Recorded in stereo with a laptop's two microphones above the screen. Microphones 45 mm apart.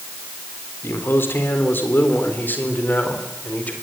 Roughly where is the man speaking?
Left.